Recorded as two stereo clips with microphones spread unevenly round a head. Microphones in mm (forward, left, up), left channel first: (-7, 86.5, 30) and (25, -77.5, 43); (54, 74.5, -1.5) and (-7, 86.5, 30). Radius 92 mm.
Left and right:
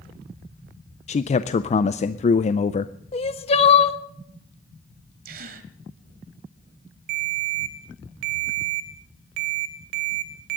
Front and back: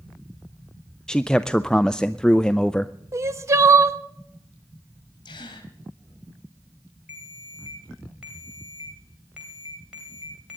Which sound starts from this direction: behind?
Crying, at 3.1 s.